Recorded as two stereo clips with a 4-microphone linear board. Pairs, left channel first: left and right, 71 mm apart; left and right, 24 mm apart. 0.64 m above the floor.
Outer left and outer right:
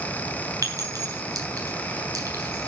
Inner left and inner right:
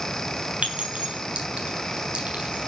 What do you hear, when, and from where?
0.6 s a clink: 60° right (ahead or behind), 3.5 m